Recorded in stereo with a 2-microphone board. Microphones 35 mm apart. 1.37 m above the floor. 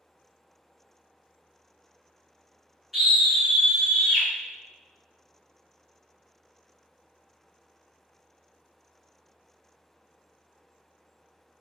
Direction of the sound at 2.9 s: Centre (ahead or behind).